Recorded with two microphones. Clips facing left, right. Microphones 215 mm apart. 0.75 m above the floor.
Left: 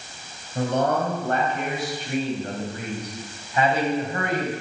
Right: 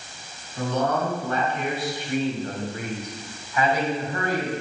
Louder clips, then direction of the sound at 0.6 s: Left 2 dB; 60° left (ahead or behind).